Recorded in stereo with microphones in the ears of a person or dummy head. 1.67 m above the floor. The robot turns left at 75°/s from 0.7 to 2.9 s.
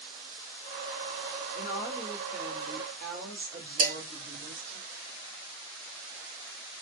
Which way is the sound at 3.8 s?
40° right (ahead or behind).